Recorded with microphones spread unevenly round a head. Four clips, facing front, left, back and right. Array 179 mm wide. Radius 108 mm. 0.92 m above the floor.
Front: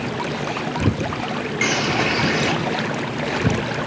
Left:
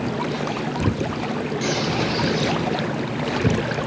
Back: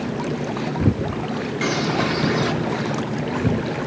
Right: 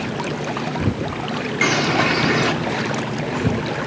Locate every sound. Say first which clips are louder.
1.6 s a bird: right 7 dB, even; 75° right, 3 m